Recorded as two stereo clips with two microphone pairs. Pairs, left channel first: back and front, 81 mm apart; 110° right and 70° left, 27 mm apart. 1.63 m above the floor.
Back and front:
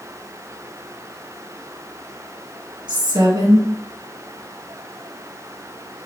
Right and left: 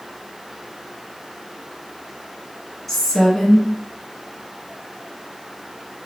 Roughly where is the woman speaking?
Ahead right.